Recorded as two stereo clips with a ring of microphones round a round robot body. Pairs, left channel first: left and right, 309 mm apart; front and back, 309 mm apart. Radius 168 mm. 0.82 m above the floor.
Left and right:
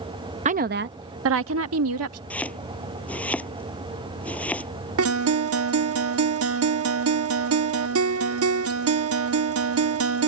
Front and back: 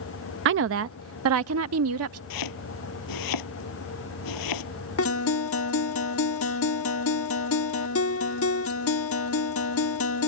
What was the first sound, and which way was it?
A woman speaking, 150° right.